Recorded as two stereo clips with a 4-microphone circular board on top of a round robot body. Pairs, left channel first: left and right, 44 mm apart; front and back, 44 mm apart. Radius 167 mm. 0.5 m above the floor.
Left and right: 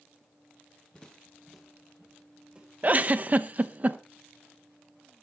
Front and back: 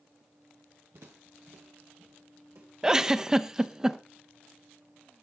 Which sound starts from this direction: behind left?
Footsteps, at 0.9 s.